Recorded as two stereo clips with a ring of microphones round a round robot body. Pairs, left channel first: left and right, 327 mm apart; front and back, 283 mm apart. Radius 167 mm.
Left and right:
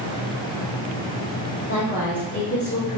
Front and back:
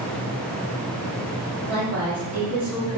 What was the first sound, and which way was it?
A woman speaking, 155° left.